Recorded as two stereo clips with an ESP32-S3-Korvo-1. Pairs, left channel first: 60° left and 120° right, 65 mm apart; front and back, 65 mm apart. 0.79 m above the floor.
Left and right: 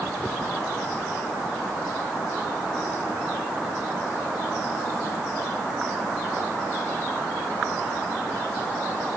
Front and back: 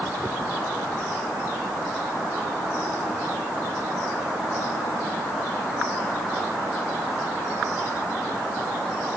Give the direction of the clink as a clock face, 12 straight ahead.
I don't hear a clink.